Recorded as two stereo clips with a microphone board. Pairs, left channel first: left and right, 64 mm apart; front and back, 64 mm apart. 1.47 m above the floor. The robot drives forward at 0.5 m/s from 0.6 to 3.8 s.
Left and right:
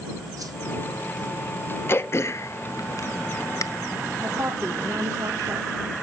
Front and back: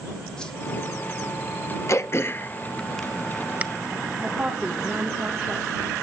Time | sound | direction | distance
0.4 | a whoosh | 75° right | 1.8 m
1.9 | throat clearing | 40° left | 0.8 m
4.2 | a woman speaking | 110° right | 2 m